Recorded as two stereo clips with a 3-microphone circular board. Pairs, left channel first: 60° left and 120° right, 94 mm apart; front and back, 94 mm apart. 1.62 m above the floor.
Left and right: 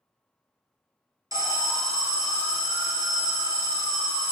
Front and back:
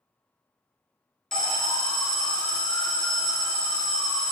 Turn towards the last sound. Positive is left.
turn(degrees=-85)